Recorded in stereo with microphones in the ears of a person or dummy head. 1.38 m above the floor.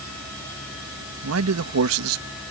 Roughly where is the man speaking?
Right.